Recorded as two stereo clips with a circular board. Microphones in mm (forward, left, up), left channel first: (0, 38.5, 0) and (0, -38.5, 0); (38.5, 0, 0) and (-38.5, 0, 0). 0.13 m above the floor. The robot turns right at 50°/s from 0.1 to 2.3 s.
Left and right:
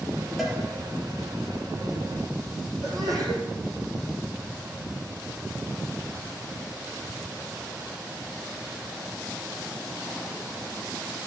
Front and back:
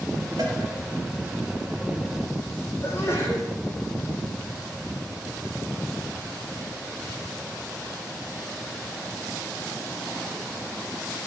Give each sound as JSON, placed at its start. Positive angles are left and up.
{"t": 0.4, "sound": "a cowbell", "azimuth_deg": 180, "distance_m": 2.5}
{"t": 2.8, "sound": "a sneeze", "azimuth_deg": -65, "distance_m": 5.0}